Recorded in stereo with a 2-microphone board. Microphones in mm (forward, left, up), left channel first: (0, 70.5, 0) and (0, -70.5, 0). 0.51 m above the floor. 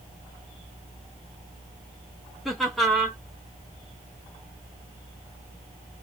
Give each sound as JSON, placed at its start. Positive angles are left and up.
{"t": 2.5, "sound": "laughter", "side_deg": 0, "distance_m": 1.3}